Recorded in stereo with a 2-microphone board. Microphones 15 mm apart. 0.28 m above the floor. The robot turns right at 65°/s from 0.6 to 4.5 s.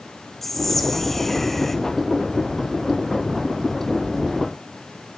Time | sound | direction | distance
0.4 | whispering | 15° left (ahead or behind) | 1.1 m